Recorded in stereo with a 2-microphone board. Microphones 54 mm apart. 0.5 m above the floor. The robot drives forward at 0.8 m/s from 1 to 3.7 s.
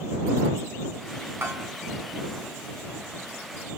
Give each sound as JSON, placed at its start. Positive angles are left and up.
{"t": 1.4, "sound": "a bell", "side_deg": -45, "distance_m": 3.5}